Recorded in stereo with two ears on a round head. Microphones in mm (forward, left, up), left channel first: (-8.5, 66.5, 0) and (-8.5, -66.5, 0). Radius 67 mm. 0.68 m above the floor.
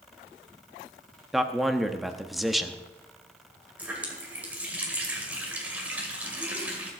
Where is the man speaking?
Centre (ahead or behind), 0.8 m.